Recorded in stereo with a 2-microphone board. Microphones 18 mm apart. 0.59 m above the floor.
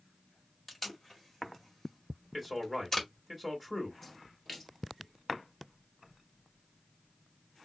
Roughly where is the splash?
Centre.